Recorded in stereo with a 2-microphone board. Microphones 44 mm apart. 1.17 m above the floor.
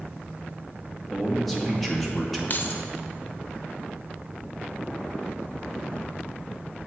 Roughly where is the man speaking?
Centre.